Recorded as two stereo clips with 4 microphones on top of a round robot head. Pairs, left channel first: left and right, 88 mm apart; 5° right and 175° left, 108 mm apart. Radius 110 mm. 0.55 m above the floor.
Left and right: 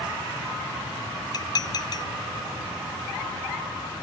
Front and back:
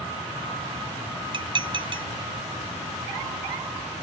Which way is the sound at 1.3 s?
135° left.